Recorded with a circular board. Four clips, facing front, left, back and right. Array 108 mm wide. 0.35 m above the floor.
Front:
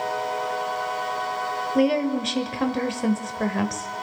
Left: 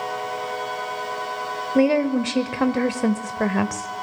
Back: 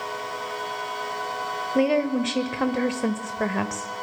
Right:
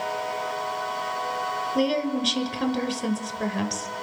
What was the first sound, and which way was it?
A woman speaking, 105° left.